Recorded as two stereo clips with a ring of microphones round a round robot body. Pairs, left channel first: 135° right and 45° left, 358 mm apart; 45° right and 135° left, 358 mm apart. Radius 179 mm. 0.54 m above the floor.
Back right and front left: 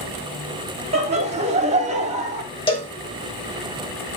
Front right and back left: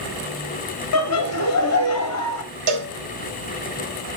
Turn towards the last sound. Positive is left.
turn(degrees=150)